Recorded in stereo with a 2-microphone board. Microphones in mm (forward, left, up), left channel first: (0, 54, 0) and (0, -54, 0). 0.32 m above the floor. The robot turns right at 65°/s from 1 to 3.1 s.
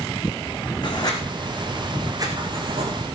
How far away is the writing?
About 4 m.